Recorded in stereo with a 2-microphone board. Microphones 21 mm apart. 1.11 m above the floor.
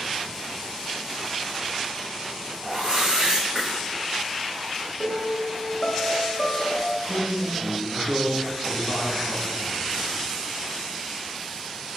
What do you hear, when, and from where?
2.6 s a whoosh: 35° right (ahead or behind), 1.5 m
5.0 s a piano: 35° left (ahead or behind), 0.6 m
7.0 s a man speaking: 20° left (ahead or behind), 1.4 m